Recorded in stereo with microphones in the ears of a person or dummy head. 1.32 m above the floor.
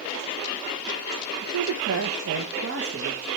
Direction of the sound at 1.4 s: 75° right (ahead or behind).